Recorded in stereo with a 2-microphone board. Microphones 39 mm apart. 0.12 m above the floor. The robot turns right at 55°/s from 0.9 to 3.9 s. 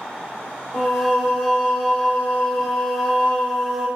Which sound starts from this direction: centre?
Singing, at 0.7 s.